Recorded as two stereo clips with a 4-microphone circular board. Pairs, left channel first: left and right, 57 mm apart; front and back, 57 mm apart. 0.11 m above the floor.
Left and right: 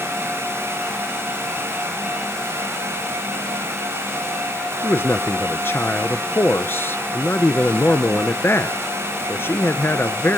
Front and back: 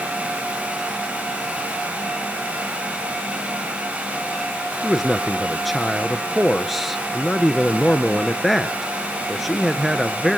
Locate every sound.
4.8 s a man speaking: 95° left, 1.3 m